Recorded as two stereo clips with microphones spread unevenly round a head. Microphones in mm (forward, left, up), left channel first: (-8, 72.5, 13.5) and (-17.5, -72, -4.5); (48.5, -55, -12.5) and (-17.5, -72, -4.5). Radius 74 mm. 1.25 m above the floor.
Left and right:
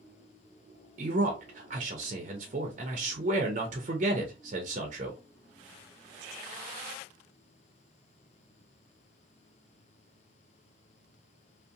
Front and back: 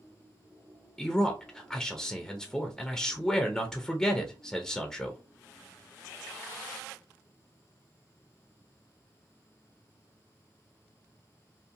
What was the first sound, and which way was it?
A man speaking, 65° right.